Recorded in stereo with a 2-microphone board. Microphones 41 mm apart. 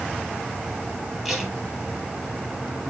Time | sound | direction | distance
1.2 | tape being pulled | 5° right (ahead or behind) | 3.5 m